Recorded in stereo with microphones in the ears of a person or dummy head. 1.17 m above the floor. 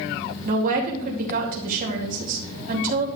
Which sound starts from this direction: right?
A woman speaking, at 0.5 s.